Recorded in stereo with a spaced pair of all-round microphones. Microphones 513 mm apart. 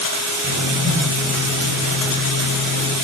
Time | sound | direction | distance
0.4 | writing | 25° left (ahead or behind) | 6 m